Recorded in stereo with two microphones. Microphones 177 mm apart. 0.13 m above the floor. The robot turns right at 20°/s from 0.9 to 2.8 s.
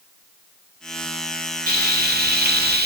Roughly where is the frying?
Right.